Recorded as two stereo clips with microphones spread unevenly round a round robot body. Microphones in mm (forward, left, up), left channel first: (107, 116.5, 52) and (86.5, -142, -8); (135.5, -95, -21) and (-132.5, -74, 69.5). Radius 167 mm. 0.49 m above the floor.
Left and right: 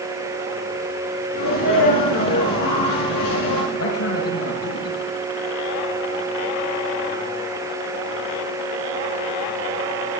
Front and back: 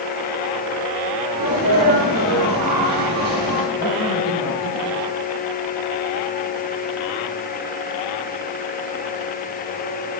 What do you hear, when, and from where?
1.3 s a sneeze: 110° left, 8.5 m
3.7 s a man speaking: 60° left, 7 m